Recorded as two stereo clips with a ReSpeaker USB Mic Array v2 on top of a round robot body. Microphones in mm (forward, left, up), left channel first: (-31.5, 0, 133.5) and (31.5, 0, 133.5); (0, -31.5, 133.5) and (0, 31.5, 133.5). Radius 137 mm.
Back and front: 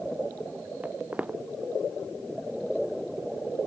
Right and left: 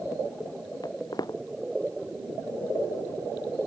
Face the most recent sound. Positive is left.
turn(degrees=-70)